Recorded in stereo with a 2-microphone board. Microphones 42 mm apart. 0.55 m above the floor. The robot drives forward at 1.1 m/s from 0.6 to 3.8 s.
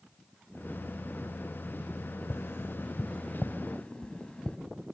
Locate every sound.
2.3 s tapping: 80° left, 0.8 m; by 4.6 s 25° left (ahead or behind), 1.8 m